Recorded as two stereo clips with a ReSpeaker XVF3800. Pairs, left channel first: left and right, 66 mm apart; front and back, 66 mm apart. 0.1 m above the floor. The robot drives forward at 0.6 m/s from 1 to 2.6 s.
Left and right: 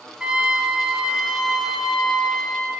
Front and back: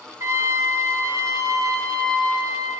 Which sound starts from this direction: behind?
A trumpet, at 0.2 s.